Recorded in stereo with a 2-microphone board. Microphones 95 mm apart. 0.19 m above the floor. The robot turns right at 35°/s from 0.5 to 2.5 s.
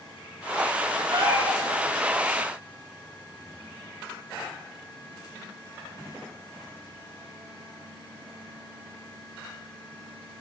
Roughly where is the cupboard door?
I don't hear a cupboard door.